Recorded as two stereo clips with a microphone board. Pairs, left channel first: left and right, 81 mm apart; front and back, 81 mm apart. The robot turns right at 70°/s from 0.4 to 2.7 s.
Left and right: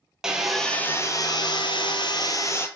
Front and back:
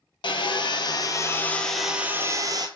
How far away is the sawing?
About 0.5 m.